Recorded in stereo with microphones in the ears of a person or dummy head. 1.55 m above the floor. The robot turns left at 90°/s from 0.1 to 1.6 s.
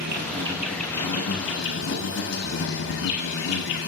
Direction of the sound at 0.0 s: 125° right.